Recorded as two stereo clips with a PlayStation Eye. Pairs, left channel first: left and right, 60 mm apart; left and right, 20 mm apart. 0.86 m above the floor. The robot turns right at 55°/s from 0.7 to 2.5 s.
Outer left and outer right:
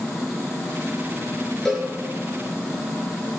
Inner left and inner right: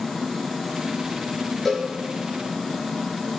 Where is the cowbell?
10° left (ahead or behind), 4.5 m; by 1.9 s centre (ahead or behind), 4.5 m.